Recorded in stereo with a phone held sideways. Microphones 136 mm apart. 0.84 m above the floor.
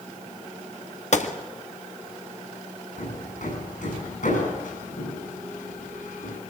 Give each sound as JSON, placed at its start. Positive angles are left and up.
{"t": 1.1, "sound": "a gunshot", "side_deg": 55, "distance_m": 1.8}
{"t": 3.0, "sound": "hammering", "side_deg": 70, "distance_m": 8.5}